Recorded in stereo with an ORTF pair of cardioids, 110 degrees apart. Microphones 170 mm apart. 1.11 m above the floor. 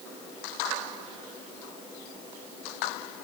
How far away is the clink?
No clink in this recording.